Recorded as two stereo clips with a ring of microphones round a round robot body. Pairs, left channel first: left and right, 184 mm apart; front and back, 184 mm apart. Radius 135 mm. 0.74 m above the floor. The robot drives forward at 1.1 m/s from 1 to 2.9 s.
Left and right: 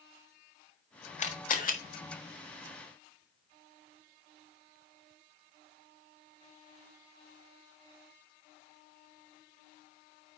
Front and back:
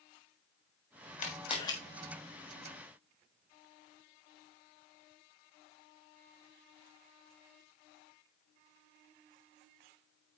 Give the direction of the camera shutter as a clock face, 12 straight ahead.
10 o'clock.